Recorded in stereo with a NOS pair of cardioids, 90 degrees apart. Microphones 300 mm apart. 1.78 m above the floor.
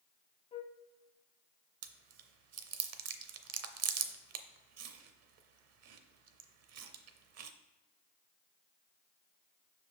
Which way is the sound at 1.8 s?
55° right.